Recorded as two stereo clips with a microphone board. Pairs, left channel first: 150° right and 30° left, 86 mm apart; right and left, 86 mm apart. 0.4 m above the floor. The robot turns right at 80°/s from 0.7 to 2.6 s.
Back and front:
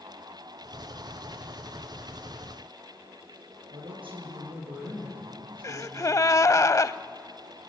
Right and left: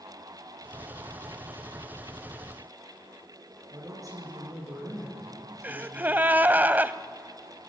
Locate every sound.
3.7 s a woman speaking: 40° left, 9.5 m
5.6 s a gasp: 160° left, 0.7 m